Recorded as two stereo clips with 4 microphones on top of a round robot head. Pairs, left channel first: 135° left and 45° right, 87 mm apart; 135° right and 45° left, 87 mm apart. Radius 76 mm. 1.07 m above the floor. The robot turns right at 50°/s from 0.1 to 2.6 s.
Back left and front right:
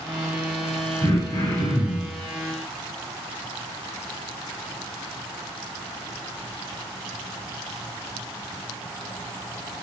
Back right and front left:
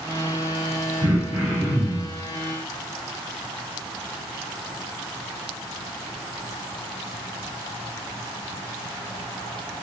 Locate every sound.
1.0 s throat clearing: 75° left, 3.5 m; by 2.1 s 135° left, 3.5 m